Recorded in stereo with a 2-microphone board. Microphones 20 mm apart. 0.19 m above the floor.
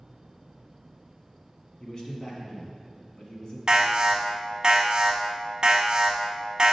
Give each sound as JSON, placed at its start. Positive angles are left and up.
{"t": 1.8, "sound": "a man speaking", "side_deg": 45, "distance_m": 1.5}
{"t": 3.7, "sound": "an alarm", "side_deg": -40, "distance_m": 0.9}